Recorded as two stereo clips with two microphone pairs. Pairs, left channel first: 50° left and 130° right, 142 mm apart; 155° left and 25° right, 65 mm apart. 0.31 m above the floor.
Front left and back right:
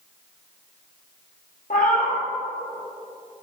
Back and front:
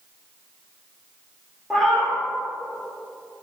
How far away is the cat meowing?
About 2.5 m.